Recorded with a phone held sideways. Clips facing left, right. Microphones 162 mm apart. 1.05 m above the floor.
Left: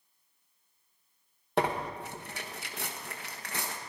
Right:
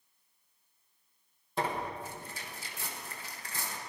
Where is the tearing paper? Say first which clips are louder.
Left 4 dB; 70° left (ahead or behind), 1.1 m.